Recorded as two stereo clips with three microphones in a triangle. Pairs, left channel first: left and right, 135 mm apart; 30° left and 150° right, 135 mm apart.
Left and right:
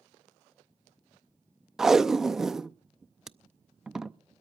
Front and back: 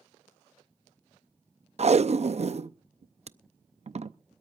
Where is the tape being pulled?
175° right, 0.5 m.